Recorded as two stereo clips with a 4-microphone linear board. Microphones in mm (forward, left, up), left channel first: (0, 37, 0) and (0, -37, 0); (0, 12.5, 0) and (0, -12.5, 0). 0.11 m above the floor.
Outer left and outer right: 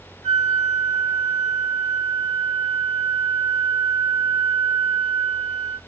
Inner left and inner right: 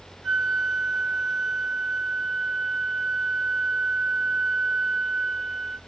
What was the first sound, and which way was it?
A flute, 10° left (ahead or behind).